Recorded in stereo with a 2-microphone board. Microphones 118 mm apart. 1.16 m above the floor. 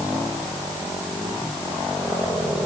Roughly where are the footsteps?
I don't hear footsteps.